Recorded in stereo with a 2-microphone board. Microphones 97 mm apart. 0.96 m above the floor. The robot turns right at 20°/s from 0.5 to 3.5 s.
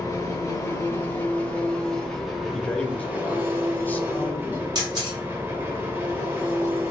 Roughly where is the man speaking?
Centre.